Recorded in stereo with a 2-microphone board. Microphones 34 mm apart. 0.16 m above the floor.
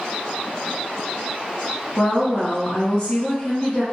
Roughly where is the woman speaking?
Left.